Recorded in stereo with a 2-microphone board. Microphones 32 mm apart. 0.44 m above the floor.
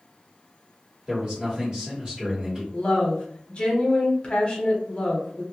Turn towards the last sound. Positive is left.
turn(degrees=35)  # may be behind; listen again after turning